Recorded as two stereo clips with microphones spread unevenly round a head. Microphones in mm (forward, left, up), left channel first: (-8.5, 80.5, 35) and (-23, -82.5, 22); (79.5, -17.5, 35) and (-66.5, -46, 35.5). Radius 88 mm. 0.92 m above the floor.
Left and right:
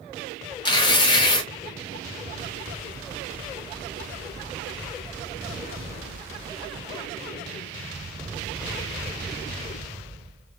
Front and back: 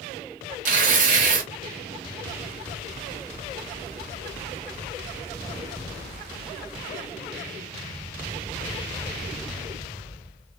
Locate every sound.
0.7 s tearing paper: 150° left, 0.7 m